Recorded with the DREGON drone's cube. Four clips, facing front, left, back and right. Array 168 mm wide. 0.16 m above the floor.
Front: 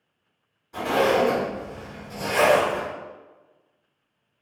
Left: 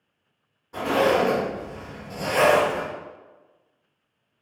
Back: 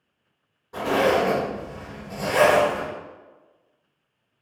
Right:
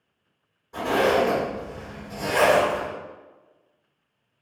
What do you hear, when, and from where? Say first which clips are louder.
0.7 s a zipper: even, even; 160° left, 1.7 m